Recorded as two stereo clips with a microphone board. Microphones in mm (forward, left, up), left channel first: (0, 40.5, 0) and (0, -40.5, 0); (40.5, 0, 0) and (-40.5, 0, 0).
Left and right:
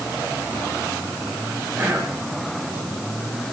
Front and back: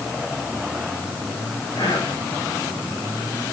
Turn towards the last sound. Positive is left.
turn(degrees=-25)